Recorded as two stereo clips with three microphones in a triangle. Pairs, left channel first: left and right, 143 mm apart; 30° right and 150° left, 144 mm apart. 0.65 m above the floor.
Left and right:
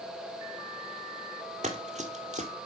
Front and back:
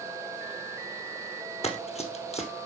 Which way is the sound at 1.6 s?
65° right.